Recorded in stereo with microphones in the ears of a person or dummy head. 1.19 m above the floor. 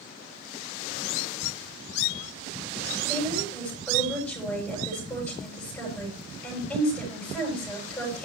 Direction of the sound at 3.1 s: 10° left (ahead or behind).